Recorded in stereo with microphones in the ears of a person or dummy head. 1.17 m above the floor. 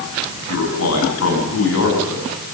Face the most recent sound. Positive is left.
turn(degrees=85)